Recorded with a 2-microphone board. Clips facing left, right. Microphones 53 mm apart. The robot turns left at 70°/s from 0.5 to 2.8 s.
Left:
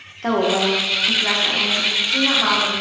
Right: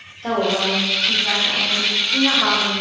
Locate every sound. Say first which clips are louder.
0.2 s a woman speaking: left 2 dB; 100° left, 0.9 m; by 2.7 s 55° right, 0.9 m